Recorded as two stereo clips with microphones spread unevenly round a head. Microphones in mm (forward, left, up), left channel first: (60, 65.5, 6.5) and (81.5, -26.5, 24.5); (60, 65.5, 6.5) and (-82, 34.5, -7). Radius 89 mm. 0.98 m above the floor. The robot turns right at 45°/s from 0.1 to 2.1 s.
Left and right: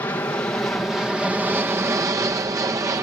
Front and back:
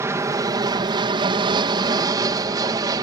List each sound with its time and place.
0.0 s an aircraft: 140° left; by 3.0 s 130° right